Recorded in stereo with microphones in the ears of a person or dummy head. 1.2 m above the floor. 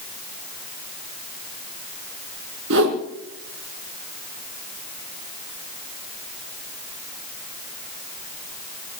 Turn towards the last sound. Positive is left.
turn(degrees=-65)  # may be behind; listen again after turning